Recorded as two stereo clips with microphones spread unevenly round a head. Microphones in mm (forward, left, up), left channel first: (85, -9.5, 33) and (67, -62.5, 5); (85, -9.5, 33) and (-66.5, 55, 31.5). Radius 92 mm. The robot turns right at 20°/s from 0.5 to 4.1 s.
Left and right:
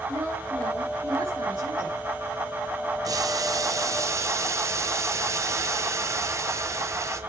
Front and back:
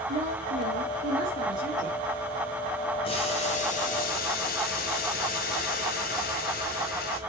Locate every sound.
0.1 s a woman speaking: 155° right, 3.5 m; by 2.0 s 125° right, 3.5 m
3.0 s boiling: 80° right, 1.9 m; by 7.2 s 55° right, 1.9 m